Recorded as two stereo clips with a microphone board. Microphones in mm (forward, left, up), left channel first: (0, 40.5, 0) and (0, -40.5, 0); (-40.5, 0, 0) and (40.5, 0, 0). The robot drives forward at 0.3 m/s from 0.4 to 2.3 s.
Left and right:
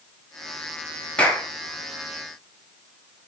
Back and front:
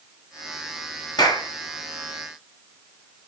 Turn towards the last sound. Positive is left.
turn(degrees=165)